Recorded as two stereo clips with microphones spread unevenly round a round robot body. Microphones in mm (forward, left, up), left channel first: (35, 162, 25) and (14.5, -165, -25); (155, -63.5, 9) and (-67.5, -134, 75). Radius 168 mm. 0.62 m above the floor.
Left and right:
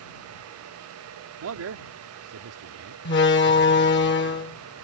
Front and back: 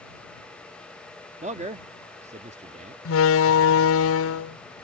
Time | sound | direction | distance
1.4 | a man speaking | 95° right | ?
3.0 | a door slam | 25° left | ?